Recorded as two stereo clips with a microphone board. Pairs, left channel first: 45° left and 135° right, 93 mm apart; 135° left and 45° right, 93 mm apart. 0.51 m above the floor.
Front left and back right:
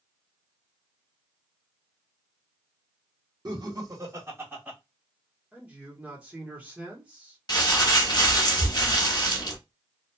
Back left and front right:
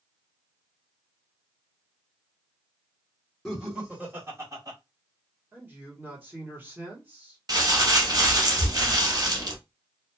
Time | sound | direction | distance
3.5 | laughter | 135° right | 1.6 m
5.5 | a man speaking | 80° right | 1.2 m
7.5 | crumpling | straight ahead | 0.9 m